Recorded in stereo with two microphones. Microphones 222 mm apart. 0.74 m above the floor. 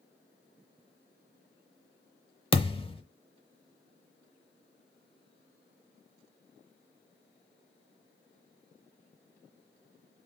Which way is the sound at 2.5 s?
25° left (ahead or behind).